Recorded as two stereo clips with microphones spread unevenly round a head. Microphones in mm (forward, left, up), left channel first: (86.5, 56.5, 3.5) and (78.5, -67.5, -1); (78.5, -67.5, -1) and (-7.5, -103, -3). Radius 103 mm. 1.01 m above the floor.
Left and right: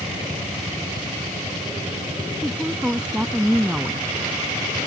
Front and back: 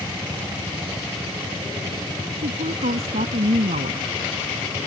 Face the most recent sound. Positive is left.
turn(degrees=180)